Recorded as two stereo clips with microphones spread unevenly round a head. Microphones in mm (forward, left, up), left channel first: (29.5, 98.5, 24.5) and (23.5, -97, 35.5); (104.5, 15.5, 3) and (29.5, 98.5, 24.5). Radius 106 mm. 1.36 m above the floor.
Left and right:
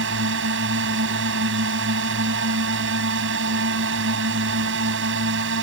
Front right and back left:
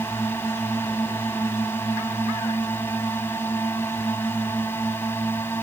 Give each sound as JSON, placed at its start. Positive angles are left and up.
{"t": 0.0, "sound": "a drone", "azimuth_deg": -130}